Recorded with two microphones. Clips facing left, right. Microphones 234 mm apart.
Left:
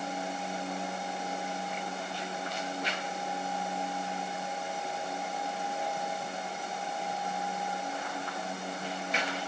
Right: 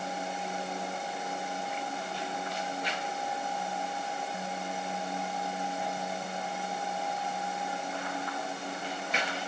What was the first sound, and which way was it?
Only background noise.